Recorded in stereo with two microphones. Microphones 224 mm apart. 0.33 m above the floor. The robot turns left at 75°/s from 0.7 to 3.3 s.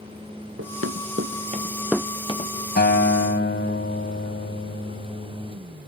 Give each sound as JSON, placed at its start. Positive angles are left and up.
{"t": 0.6, "sound": "running footsteps", "side_deg": -85}
{"t": 2.8, "sound": "a guitar", "azimuth_deg": 125}